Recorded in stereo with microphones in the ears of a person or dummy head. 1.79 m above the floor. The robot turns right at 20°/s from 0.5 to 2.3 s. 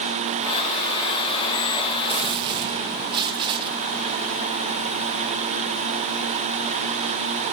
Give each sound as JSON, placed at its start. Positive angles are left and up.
{"t": 2.1, "sound": "a gunshot", "side_deg": -25, "distance_m": 1.3}